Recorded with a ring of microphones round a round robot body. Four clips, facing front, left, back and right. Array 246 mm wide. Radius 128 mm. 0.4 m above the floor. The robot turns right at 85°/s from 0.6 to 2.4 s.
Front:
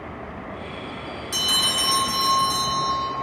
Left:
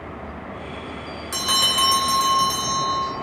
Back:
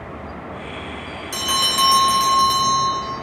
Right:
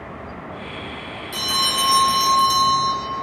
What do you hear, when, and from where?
1.3 s a bell: 95° left, 1.4 m; by 2.9 s 170° right, 1.4 m